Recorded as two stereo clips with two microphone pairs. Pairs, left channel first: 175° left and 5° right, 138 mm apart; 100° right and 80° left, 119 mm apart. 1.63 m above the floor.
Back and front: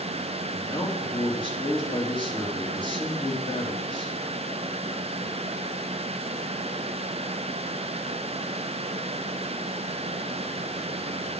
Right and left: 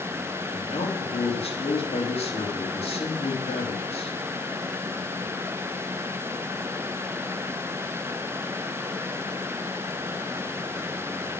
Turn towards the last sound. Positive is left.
turn(degrees=-130)